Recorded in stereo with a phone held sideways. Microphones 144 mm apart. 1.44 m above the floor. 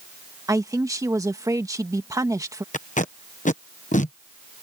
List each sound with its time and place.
0.5 s a man speaking: 25° right (ahead or behind)
2.7 s tape being pulled: 70° left (ahead or behind)